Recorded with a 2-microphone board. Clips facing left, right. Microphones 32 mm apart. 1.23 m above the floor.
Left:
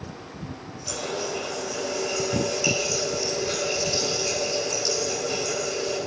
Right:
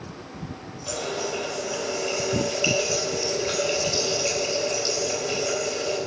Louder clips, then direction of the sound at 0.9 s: Right 1 dB; 30° right (ahead or behind).